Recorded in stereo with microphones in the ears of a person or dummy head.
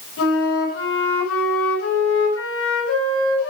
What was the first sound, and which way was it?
A flute, 85° left.